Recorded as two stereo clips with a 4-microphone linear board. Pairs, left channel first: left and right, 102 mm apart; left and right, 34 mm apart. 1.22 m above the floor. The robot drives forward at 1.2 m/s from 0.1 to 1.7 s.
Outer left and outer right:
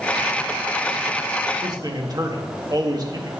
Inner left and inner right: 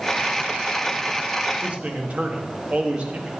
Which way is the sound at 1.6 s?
45° right (ahead or behind).